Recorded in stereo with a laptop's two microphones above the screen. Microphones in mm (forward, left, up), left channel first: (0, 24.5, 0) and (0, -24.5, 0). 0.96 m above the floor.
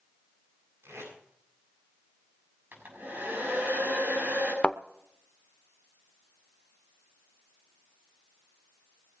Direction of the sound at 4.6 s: 25° left (ahead or behind).